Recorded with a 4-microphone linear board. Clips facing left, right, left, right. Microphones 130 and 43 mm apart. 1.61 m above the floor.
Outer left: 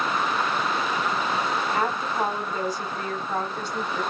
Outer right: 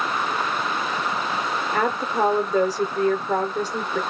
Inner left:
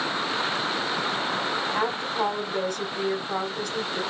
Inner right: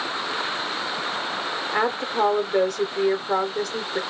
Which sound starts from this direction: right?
A woman speaking, at 1.7 s.